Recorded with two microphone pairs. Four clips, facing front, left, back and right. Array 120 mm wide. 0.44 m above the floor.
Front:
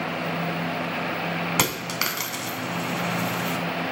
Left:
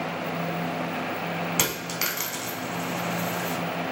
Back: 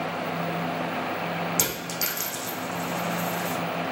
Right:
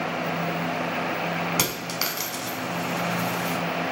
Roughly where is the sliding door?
No sliding door in this recording.